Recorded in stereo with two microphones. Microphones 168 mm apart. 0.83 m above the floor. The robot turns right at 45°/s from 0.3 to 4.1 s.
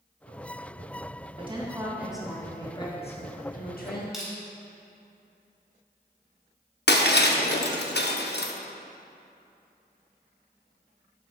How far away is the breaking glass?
About 0.6 m.